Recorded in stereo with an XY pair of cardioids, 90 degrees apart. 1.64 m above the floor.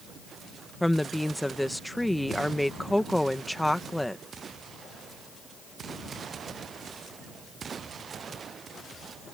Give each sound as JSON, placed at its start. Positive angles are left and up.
{"t": 0.8, "sound": "a woman speaking", "azimuth_deg": 5}